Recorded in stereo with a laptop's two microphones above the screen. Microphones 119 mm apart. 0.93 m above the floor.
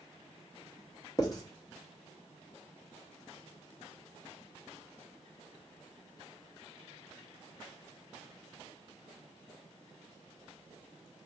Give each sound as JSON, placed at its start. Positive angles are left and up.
{"t": 1.2, "sound": "writing", "side_deg": 30, "distance_m": 0.8}